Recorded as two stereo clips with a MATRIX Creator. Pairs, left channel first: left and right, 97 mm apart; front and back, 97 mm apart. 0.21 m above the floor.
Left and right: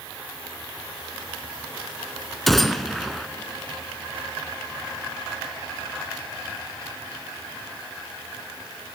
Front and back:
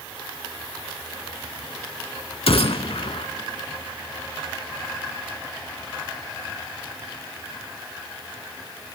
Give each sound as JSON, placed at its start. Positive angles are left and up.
{"t": 2.5, "sound": "a gunshot", "azimuth_deg": 0, "distance_m": 0.5}